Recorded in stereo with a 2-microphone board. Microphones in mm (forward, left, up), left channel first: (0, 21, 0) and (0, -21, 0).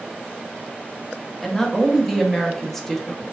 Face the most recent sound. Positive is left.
turn(degrees=5)  # may be behind; listen again after turning